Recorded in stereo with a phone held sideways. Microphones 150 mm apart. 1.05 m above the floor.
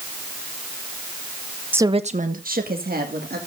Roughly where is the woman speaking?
Centre.